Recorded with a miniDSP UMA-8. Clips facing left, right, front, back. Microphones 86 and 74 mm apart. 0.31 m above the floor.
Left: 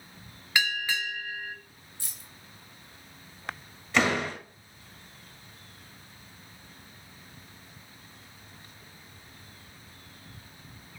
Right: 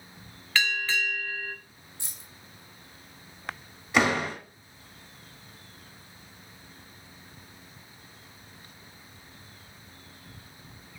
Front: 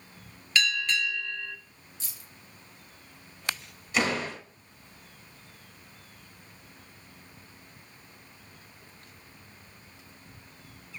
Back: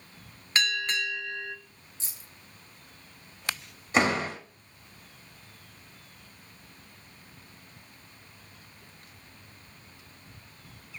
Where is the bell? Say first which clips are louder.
Right 1 dB, front 1 dB; 160° left, 0.8 m.